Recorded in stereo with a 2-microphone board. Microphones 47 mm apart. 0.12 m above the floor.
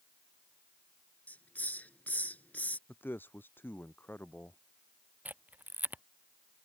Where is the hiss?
40° left (ahead or behind).